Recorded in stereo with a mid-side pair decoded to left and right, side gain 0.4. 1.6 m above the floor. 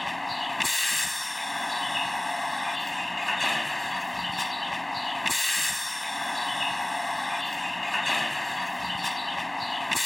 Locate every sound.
0.0 s a vehicle: 10° left